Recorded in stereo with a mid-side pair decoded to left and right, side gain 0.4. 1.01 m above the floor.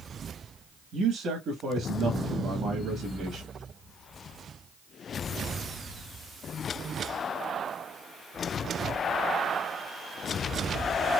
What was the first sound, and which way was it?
A man speaking, 70° right.